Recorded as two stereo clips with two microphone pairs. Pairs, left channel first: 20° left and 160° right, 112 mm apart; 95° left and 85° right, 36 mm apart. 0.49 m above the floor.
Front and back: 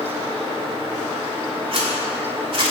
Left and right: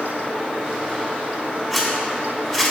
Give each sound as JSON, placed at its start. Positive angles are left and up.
{"t": 1.7, "sound": "a zipper", "azimuth_deg": 175, "distance_m": 1.6}